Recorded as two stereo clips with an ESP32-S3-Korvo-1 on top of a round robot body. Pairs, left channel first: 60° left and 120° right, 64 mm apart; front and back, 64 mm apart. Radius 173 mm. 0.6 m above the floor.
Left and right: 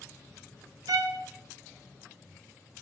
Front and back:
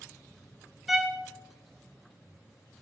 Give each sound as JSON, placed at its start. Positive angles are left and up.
{"t": 0.9, "sound": "a violin", "azimuth_deg": -95, "distance_m": 0.7}